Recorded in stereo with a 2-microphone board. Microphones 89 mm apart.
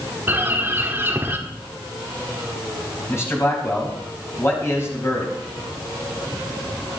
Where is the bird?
25° right (ahead or behind), 1.8 m.